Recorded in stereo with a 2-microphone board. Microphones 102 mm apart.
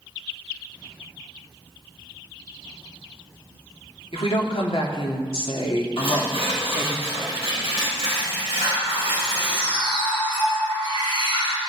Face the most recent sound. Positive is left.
turn(degrees=45)  # may be behind; listen again after turning